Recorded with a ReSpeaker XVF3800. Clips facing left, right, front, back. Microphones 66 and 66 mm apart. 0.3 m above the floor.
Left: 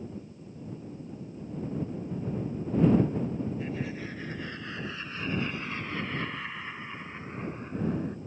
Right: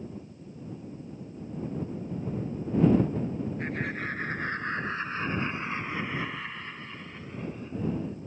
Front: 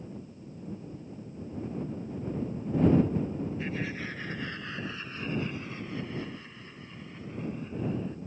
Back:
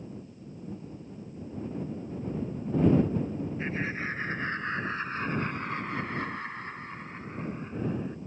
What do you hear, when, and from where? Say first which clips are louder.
3.6 s laughter: right 2 dB, back 2 dB; 120° right; by 8.2 s 120° left